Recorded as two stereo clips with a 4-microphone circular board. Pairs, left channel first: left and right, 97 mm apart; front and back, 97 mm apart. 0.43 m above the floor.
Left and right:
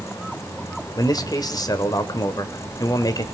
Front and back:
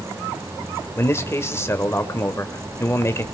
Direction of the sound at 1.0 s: 60° left.